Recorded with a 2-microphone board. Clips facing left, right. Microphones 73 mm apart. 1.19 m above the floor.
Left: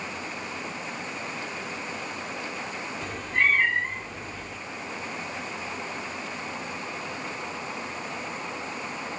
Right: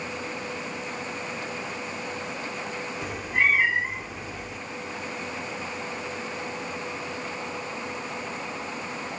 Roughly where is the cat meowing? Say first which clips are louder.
Even; centre.